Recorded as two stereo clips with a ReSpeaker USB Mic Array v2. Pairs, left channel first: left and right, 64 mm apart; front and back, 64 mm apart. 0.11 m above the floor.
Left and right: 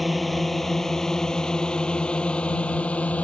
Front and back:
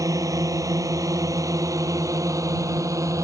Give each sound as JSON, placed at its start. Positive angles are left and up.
{"t": 0.0, "sound": "a drone", "azimuth_deg": 180}